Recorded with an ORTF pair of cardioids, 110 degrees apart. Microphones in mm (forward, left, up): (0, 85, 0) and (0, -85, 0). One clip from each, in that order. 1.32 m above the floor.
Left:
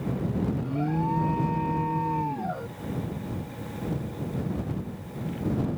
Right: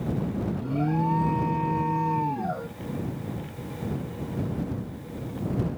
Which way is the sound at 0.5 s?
10° right.